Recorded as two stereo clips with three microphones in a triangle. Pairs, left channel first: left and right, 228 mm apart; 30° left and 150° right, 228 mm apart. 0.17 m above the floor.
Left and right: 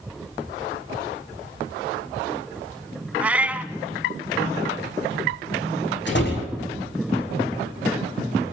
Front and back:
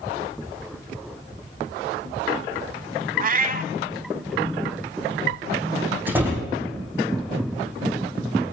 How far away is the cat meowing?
About 0.7 m.